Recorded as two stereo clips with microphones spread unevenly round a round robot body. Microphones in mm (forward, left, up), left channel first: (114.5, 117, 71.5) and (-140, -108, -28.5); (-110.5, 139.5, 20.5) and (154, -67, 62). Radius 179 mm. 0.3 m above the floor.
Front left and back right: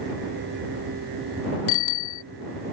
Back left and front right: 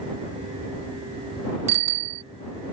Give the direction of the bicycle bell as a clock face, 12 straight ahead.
10 o'clock.